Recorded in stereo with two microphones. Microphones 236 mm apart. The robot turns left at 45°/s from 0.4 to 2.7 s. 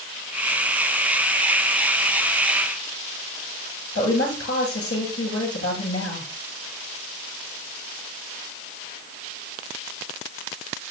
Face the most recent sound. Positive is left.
turn(degrees=75)  # may be behind; listen again after turning